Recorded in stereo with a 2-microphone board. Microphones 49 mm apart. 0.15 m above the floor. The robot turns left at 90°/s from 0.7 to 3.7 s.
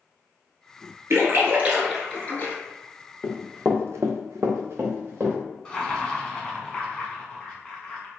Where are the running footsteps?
35° left (ahead or behind), 1.0 m; by 5.4 s 40° right (ahead or behind), 1.8 m.